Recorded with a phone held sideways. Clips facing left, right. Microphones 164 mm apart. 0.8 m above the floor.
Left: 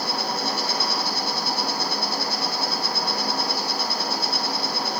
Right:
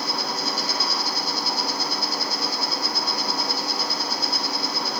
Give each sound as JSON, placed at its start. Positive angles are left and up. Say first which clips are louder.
{"t": 0.0, "sound": "an insect", "louder": "left 2 dB", "side_deg": 60, "distance_m": 3.0}